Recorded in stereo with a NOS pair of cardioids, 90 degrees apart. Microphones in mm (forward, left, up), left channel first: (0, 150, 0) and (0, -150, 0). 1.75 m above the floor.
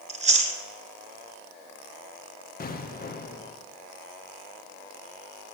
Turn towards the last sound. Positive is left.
turn(degrees=30)